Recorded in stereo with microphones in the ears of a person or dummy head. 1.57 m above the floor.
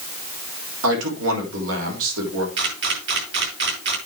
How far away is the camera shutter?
About 5.5 m.